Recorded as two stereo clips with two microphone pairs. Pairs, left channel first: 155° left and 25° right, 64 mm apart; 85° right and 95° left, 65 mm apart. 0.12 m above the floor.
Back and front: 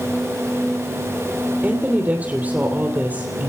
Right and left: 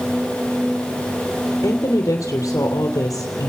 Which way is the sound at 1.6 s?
85° right.